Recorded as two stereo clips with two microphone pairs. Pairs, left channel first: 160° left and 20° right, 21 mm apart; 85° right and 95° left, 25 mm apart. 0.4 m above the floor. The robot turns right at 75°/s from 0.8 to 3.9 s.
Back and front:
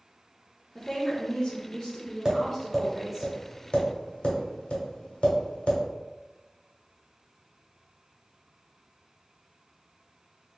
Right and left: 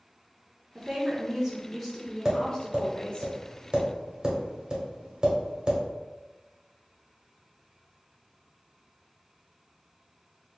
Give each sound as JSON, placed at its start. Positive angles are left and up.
{"t": 0.8, "sound": "a woman speaking", "azimuth_deg": 110, "distance_m": 0.9}
{"t": 2.2, "sound": "tapping", "azimuth_deg": 30, "distance_m": 1.3}